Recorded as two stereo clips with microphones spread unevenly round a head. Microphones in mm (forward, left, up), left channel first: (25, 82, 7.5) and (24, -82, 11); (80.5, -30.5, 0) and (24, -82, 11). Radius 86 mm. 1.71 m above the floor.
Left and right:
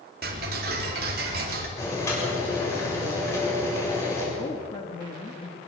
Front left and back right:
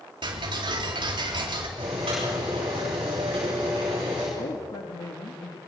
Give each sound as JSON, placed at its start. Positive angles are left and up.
{"t": 0.2, "sound": "ticking", "azimuth_deg": -130, "distance_m": 3.5}
{"t": 1.8, "sound": "boiling", "azimuth_deg": 165, "distance_m": 7.0}
{"t": 4.4, "sound": "a woman speaking", "azimuth_deg": 30, "distance_m": 2.5}